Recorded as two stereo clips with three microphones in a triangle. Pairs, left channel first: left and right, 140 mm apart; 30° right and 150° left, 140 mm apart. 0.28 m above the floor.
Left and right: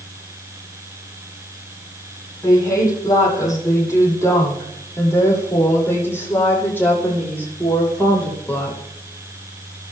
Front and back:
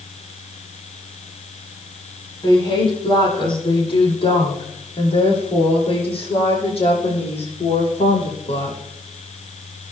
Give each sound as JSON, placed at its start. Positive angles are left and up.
{"t": 2.4, "sound": "a woman speaking", "azimuth_deg": 25, "distance_m": 9.5}